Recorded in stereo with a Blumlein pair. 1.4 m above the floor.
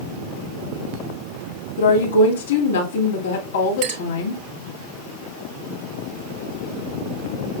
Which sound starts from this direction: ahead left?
A woman speaking, at 1.8 s.